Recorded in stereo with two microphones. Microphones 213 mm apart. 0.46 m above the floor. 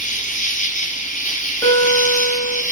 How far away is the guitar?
About 5.5 m.